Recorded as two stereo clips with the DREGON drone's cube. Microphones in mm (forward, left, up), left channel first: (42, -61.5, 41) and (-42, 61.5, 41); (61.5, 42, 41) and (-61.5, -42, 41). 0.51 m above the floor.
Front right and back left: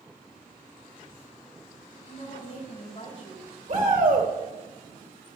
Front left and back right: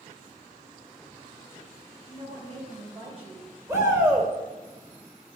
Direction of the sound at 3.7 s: 145° left.